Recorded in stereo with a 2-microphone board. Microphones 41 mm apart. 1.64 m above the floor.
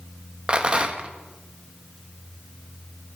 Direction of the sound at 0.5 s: 25° right (ahead or behind).